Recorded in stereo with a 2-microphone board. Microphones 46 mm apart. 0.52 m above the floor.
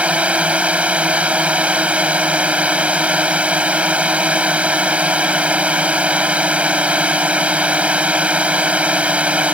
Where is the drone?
30° right (ahead or behind).